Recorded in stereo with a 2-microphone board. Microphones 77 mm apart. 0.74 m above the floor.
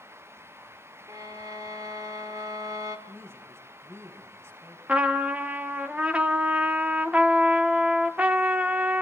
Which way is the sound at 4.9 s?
15° right (ahead or behind).